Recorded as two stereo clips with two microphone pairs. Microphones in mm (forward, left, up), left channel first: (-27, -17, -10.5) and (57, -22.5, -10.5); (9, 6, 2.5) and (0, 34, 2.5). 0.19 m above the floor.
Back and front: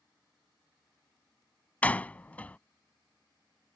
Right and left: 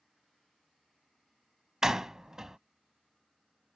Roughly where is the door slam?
Behind left.